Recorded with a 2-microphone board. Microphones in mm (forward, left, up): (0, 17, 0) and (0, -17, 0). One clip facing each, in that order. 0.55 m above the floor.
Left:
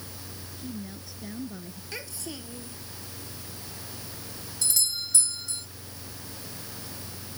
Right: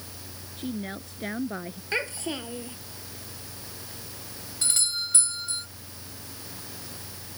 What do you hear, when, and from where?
0.6 s a woman speaking: 60° right (ahead or behind)
1.9 s a child speaking: 50° right (ahead or behind)
4.6 s a doorbell: 45° right (ahead or behind)